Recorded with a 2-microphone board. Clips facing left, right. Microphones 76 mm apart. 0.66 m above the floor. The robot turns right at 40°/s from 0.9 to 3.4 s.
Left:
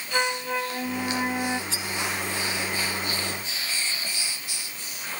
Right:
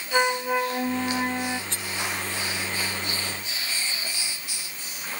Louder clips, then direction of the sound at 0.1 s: Right 4 dB; 15° right (ahead or behind).